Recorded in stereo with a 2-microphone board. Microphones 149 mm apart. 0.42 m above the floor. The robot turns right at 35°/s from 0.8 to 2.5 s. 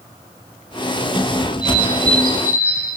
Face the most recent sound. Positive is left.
turn(degrees=-10)